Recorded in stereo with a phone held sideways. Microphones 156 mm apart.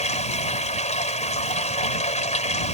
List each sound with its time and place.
0.0 s running water: 45° left (ahead or behind)